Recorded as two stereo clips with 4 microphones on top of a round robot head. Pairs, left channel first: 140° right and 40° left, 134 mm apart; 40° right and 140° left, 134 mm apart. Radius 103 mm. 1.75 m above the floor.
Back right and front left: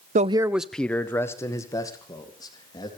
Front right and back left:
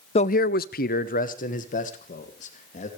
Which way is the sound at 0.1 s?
5° left.